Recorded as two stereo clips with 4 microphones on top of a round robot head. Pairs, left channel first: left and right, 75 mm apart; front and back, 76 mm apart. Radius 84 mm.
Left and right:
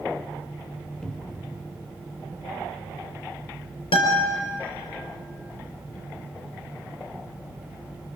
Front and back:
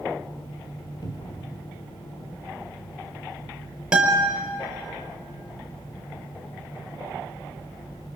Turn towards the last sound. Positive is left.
turn(degrees=100)